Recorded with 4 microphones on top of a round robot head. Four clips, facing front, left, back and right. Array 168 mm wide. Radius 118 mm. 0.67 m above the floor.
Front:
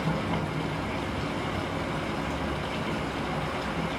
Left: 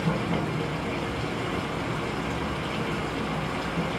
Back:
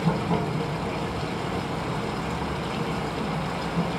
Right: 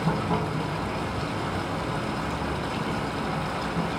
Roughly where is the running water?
Behind right.